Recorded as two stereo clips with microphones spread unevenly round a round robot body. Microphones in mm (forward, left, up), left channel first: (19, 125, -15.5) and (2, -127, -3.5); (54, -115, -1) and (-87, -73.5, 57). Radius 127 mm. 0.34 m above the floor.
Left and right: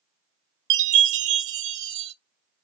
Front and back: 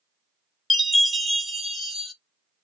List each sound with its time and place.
0.7 s a chime: 105° right, 0.6 m